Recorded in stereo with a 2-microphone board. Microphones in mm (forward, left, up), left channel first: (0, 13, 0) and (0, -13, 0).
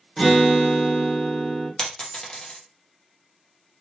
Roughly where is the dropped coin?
Left.